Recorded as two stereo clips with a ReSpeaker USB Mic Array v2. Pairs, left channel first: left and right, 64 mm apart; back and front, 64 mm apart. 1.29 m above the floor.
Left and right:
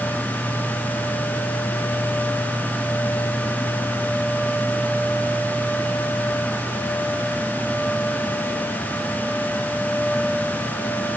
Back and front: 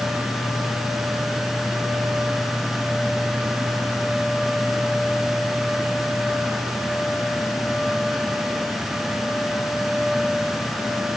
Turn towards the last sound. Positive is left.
No sound to turn to.